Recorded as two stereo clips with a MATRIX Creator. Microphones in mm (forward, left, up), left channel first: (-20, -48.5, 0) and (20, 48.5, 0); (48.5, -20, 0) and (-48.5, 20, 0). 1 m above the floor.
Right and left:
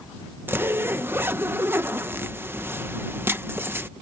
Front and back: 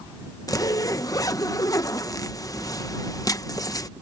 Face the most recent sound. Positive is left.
turn(degrees=10)